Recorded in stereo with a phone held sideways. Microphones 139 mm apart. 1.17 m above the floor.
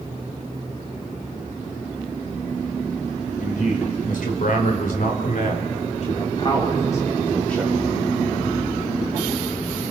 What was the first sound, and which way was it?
A man speaking, 70° left (ahead or behind).